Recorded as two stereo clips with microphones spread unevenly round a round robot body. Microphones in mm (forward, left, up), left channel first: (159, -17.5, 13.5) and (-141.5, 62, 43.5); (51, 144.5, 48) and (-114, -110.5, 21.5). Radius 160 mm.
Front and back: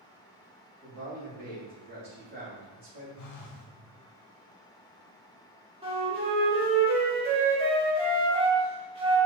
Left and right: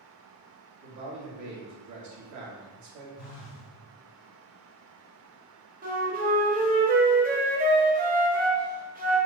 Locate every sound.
0.8 s a man speaking: 130° right, 1.3 m
3.2 s a phone buzzing: 20° left, 0.7 m
5.8 s a flute: 130° right, 0.8 m